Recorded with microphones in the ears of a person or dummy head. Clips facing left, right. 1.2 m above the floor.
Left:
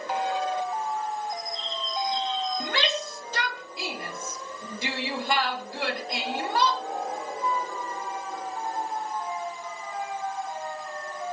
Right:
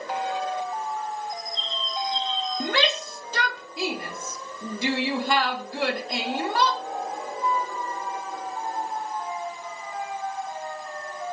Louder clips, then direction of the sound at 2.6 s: Right 3 dB; 60° right (ahead or behind).